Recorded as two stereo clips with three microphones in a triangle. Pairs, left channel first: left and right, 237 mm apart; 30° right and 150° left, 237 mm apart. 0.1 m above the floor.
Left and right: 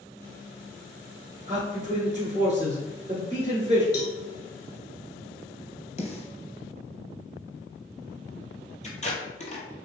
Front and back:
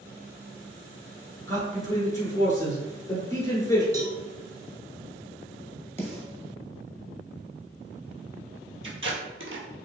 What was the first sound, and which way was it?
A man speaking, 95° right.